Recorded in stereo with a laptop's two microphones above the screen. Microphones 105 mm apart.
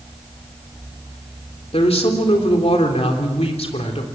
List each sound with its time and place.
1.7 s a woman speaking: 75° left (ahead or behind), 3.5 m